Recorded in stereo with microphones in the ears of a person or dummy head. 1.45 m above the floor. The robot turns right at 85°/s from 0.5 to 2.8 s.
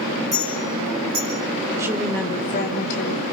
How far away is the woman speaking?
About 3 m.